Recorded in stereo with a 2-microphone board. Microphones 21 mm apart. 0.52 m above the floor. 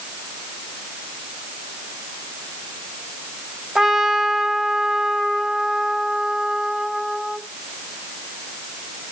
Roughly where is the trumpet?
Right.